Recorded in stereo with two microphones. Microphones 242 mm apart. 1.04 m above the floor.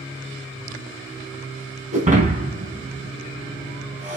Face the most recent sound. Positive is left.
turn(degrees=-30)  # may be behind; listen again after turning